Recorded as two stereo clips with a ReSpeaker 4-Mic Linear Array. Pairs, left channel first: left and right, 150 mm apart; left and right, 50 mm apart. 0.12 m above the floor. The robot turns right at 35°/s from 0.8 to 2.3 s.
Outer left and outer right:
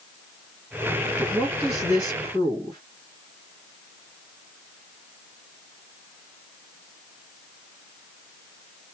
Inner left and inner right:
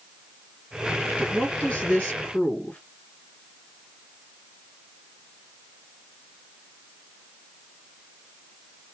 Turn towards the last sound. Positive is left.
turn(degrees=25)  # may be behind; listen again after turning